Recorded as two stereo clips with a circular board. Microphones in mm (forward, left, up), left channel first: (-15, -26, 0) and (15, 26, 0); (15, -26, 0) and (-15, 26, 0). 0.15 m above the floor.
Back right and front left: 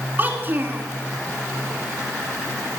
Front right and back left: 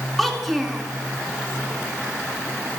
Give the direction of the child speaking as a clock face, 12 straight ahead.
11 o'clock.